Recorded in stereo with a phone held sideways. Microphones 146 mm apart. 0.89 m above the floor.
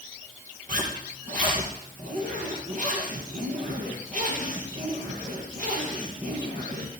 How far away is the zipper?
About 3.5 m.